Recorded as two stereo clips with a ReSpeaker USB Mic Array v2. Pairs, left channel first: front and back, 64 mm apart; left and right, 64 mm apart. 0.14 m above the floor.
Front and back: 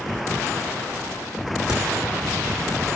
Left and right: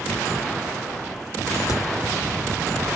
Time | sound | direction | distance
1.7 | a crack | 100° left | 2.5 m